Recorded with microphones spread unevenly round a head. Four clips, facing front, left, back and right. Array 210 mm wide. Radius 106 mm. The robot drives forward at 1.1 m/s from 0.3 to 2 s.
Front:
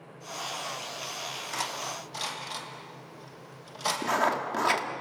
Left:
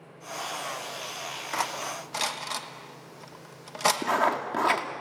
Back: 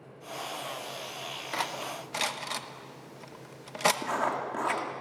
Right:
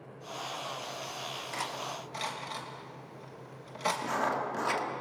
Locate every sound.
1.5 s cutlery clinking: 115° left, 0.9 m; by 3.9 s 145° left, 1.1 m
4.0 s writing: 70° left, 1.8 m